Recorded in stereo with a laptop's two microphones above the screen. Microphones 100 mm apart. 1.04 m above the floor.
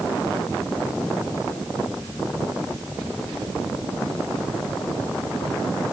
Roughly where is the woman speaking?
I don't hear a woman speaking.